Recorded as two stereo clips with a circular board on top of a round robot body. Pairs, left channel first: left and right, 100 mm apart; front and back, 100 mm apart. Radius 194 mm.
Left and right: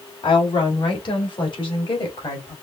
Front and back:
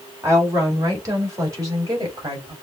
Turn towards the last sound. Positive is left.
turn(degrees=130)